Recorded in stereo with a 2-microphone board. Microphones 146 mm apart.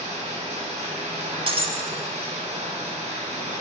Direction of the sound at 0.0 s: 50° right (ahead or behind).